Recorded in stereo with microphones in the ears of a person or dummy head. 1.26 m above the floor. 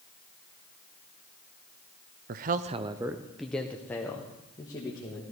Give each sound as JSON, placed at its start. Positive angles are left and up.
{"t": 2.3, "sound": "a man speaking", "side_deg": -40, "distance_m": 0.6}